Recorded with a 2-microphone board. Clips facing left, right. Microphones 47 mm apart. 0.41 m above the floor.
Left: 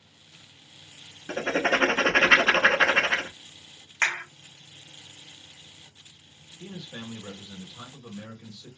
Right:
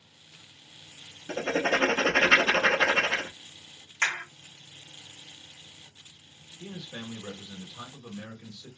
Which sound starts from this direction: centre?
A man speaking, at 6.6 s.